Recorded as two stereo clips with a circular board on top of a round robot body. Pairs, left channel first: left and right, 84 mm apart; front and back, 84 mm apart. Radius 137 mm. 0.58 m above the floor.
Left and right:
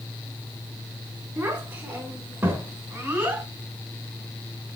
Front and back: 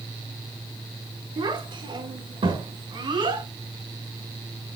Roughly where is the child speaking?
Behind.